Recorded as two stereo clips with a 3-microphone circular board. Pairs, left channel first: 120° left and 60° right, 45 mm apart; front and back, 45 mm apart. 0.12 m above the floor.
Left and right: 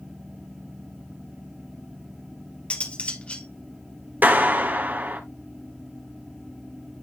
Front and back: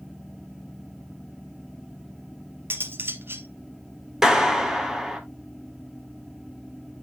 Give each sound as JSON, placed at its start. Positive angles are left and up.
{"t": 2.7, "sound": "cutlery clinking", "azimuth_deg": 175, "distance_m": 1.8}
{"t": 4.2, "sound": "a clap", "azimuth_deg": -105, "distance_m": 1.9}